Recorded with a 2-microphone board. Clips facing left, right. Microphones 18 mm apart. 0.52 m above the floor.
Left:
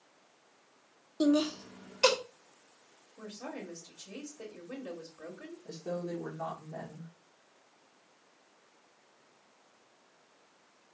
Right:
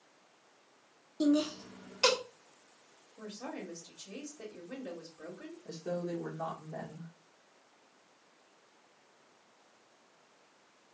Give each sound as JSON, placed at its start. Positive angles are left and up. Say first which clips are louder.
{"t": 1.2, "sound": "laughter", "louder": "left 2 dB", "side_deg": 20, "distance_m": 0.7}
{"t": 3.2, "sound": "a woman speaking", "louder": "even", "side_deg": 15, "distance_m": 1.5}
{"t": 5.7, "sound": "a woman speaking", "louder": "even", "side_deg": -35, "distance_m": 1.4}